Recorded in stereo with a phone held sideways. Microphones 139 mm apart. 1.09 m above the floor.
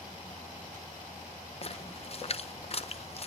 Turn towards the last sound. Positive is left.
turn(degrees=45)  # may be behind; listen again after turning